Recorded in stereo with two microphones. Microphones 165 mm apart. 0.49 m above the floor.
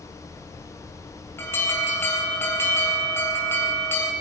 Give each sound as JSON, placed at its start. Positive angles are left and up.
{"t": 1.4, "sound": "an alarm", "side_deg": 15, "distance_m": 2.0}